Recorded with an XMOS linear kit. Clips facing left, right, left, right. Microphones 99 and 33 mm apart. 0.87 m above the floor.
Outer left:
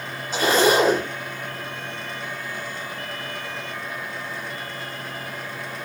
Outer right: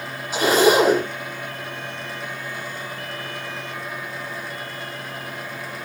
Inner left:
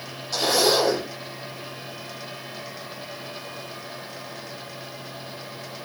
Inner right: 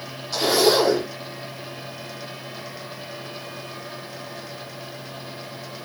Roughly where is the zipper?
Centre.